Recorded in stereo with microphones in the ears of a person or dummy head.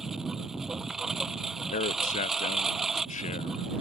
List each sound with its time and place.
0.0 s a lawn mower: 5° right (ahead or behind)
1.7 s a man speaking: 35° left (ahead or behind)